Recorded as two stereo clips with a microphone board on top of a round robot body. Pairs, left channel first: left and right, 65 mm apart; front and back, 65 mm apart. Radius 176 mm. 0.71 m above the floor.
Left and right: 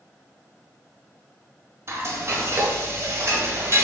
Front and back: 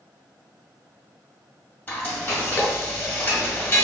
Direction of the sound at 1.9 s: 55° right.